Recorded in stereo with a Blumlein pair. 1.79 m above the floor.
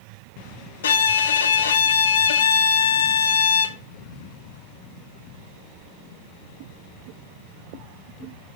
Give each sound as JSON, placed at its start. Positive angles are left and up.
{"t": 0.8, "sound": "a violin", "azimuth_deg": 60, "distance_m": 1.2}